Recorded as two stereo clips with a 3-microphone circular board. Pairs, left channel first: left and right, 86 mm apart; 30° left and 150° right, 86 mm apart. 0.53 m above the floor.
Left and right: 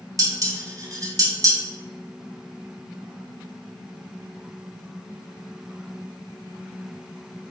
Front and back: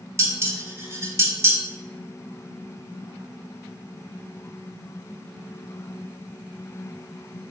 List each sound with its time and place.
0.2 s dishes clattering: 110° right, 0.5 m